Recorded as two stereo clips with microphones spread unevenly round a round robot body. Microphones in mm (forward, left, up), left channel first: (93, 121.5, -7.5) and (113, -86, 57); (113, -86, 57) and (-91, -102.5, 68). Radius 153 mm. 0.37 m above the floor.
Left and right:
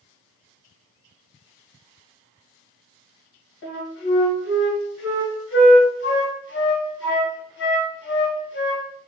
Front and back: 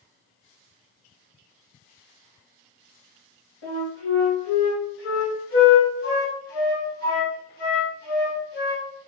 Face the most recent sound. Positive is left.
turn(degrees=60)